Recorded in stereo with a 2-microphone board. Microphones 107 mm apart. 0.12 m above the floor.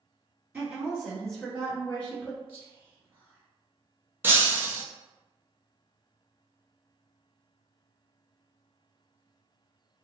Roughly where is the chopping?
No chopping in this recording.